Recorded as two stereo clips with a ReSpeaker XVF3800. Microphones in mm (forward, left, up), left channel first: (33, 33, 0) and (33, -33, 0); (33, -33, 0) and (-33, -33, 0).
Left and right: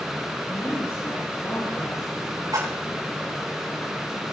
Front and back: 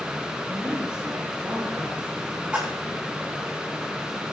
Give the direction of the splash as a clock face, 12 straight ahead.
4 o'clock.